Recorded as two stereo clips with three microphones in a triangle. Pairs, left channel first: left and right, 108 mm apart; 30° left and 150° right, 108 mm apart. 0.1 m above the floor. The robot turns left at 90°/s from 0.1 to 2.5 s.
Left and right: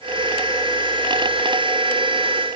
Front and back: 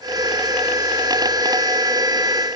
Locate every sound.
Only background noise.